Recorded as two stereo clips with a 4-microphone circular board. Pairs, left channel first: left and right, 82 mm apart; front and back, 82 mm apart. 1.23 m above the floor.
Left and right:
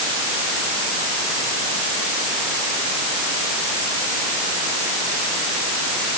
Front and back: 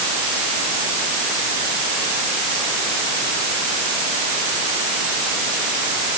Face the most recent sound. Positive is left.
No sound to turn to.